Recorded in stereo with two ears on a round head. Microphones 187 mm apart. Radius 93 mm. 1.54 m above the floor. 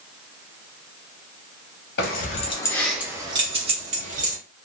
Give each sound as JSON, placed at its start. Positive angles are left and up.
{"t": 2.0, "sound": "keys jangling", "side_deg": 50, "distance_m": 0.9}